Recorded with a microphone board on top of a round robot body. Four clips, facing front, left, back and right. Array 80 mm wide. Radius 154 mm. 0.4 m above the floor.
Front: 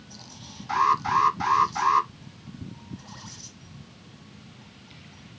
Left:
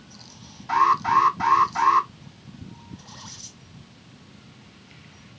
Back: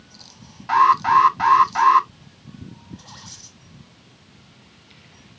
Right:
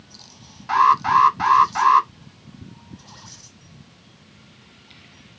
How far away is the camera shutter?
I don't hear a camera shutter.